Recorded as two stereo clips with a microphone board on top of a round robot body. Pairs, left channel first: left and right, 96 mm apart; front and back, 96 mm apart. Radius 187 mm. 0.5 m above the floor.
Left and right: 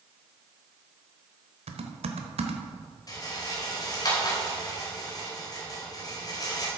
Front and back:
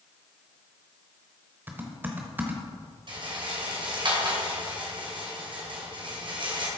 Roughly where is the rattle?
Behind left.